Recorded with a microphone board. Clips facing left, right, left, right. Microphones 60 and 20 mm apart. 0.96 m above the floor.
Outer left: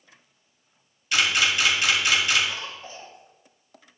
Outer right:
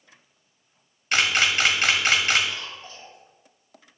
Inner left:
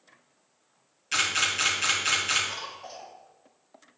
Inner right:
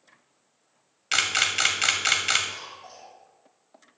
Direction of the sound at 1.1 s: 55° right (ahead or behind).